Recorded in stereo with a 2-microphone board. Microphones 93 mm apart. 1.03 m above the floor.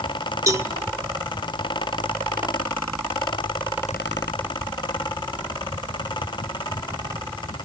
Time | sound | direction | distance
0.5 | a cowbell | 35° right (ahead or behind) | 1.2 m